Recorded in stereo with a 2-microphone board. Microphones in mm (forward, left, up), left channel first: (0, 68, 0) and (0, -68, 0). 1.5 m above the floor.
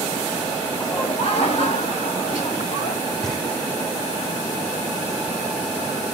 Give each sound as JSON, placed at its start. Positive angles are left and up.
{"t": 0.8, "sound": "laughter", "side_deg": 40, "distance_m": 3.0}
{"t": 3.2, "sound": "knocking", "side_deg": 5, "distance_m": 1.5}